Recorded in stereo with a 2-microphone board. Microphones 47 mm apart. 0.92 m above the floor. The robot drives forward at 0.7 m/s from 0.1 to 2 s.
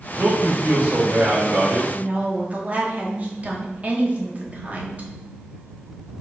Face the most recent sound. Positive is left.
turn(degrees=-35)  # may be behind; listen again after turning